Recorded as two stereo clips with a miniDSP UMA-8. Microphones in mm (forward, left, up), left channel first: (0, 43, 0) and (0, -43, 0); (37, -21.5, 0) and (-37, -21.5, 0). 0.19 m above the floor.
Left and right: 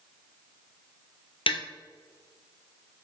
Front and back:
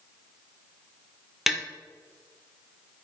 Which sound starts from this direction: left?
Tapping, at 1.5 s.